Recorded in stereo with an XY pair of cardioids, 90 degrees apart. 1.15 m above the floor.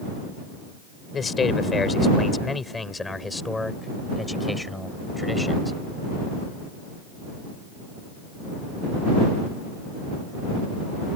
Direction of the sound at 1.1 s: 45° left.